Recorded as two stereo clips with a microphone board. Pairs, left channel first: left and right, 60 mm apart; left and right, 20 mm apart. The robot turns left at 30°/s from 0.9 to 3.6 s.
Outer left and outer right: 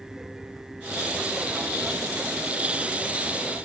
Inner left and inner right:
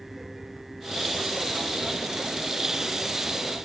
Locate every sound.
Only background noise.